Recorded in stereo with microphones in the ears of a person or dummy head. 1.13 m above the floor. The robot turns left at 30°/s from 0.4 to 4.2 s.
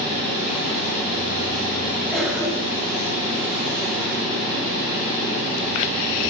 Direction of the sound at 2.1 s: 10° right (ahead or behind).